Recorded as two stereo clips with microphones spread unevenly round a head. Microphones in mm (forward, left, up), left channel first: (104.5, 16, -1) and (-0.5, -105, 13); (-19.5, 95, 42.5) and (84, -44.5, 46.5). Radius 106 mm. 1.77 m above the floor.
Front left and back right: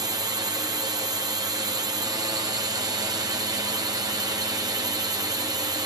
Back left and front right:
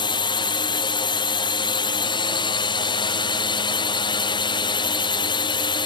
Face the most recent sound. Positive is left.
turn(degrees=165)